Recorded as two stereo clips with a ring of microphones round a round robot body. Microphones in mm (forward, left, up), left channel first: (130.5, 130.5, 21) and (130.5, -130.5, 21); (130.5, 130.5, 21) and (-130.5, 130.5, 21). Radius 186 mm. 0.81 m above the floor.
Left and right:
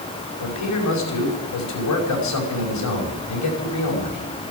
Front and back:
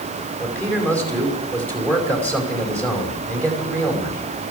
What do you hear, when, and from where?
0.4 s a man speaking: 85° left, 5.5 m